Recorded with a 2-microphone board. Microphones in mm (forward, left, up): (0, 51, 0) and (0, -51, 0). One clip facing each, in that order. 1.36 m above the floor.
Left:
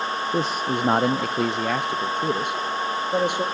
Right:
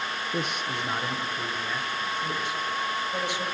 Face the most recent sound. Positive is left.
turn(degrees=50)  # may be behind; listen again after turning